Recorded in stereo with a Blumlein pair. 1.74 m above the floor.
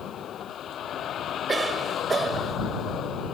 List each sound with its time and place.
0.0 s a vehicle: 30° left
1.5 s a cough: 10° right